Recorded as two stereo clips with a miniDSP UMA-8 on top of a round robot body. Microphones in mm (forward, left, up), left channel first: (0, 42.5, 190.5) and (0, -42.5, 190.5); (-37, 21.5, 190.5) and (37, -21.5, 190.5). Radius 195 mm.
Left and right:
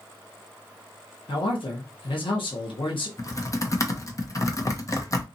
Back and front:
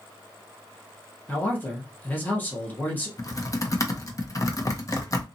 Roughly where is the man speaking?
Left.